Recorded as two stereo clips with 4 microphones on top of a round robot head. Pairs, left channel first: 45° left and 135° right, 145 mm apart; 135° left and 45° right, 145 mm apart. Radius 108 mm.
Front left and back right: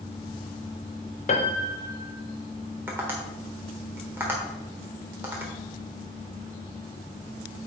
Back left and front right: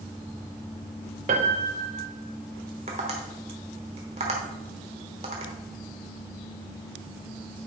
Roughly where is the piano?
Ahead.